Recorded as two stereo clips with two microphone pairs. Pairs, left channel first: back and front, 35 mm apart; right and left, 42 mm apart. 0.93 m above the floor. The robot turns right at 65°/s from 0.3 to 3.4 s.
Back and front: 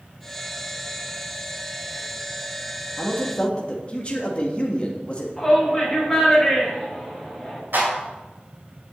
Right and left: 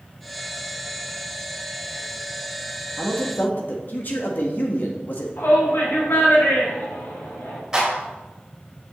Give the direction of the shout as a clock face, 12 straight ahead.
3 o'clock.